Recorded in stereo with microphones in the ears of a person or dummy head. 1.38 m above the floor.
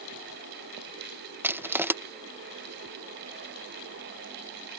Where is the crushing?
5° right (ahead or behind).